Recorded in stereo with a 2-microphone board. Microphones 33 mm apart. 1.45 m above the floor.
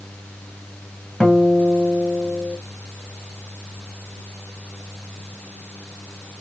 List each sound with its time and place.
1.2 s a guitar: 20° left (ahead or behind), 1.8 m